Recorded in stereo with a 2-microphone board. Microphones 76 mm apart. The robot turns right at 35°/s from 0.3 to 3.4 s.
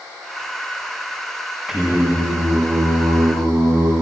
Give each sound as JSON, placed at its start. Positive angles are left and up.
{"t": 1.7, "sound": "singing", "azimuth_deg": -170, "distance_m": 6.5}